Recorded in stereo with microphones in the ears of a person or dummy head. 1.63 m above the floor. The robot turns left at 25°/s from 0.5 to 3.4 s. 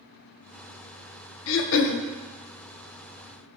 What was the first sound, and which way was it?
Throat clearing, 75° left (ahead or behind).